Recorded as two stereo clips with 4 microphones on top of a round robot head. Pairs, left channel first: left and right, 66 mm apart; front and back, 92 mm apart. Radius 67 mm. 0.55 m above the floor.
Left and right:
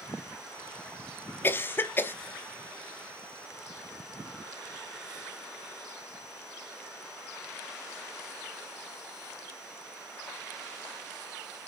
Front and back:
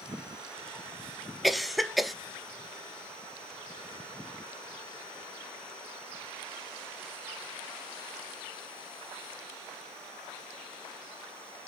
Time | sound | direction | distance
1.4 | a cough | 90° left | 0.7 m